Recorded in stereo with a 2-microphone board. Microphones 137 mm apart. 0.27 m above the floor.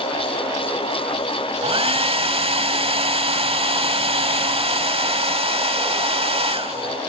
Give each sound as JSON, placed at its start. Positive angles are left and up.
{"t": 1.6, "sound": "a hair dryer", "side_deg": -45, "distance_m": 0.8}